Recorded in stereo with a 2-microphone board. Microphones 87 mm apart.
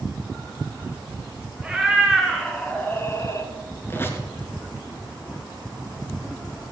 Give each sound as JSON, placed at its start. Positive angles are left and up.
{"t": 1.6, "sound": "a cat meowing", "side_deg": -5, "distance_m": 2.5}
{"t": 3.9, "sound": "a squeak", "side_deg": 25, "distance_m": 1.9}